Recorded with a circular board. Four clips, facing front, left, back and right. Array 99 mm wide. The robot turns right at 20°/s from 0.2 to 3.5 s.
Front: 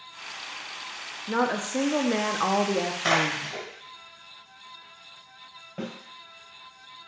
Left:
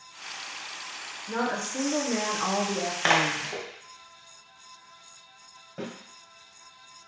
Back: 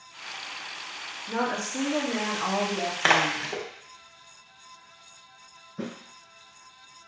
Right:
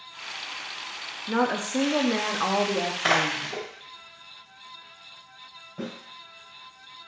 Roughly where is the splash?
Behind left.